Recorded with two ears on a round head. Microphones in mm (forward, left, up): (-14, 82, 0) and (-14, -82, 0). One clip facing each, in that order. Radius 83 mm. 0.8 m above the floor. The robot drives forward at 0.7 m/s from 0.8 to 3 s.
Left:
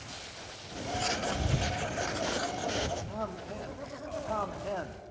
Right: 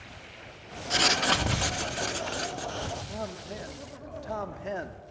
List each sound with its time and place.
0.9 s writing: 65° right (ahead or behind), 0.5 m; by 3.0 s 20° right (ahead or behind), 1.3 m
3.1 s a man speaking: 10° right (ahead or behind), 1.6 m